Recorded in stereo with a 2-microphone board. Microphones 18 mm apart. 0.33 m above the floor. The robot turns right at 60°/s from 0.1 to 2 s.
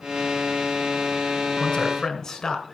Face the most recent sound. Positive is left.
turn(degrees=40)  # may be behind; listen again after turning